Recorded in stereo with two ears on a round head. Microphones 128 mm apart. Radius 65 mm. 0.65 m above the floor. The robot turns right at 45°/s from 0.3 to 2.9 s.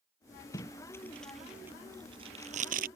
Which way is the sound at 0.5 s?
35° left (ahead or behind).